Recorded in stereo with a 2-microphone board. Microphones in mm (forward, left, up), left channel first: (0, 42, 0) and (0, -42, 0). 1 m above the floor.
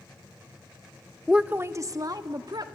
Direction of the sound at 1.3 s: Centre (ahead or behind).